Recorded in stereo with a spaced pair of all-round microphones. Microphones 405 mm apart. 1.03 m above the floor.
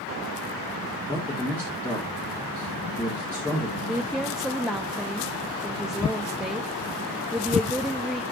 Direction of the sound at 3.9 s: Centre (ahead or behind).